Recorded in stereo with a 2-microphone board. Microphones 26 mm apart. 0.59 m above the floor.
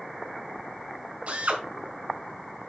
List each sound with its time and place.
1.3 s a drill: 50° right (ahead or behind), 2.5 m